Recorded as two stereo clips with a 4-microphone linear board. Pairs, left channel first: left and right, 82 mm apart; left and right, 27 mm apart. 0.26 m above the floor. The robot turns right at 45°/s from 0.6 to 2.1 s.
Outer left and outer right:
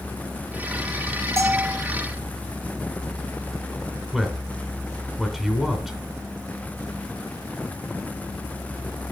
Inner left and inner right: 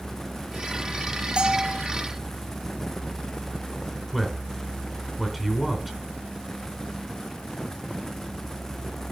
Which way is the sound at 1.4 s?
35° right (ahead or behind).